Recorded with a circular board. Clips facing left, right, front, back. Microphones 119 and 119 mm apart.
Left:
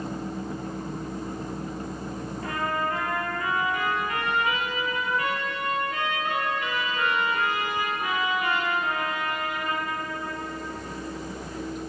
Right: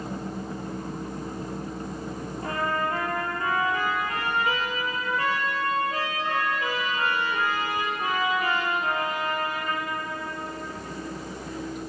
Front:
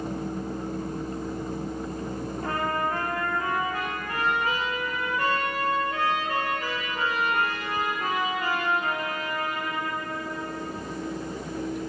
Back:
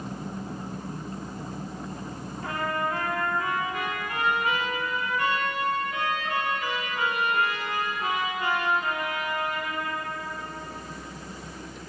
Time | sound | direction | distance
2.4 | a trumpet | 40° right | 2.5 m